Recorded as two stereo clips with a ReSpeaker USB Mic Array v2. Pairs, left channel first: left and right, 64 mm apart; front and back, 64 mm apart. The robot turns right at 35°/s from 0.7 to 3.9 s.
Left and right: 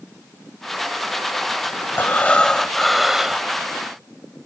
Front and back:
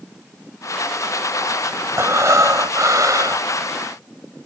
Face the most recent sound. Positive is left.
turn(degrees=-145)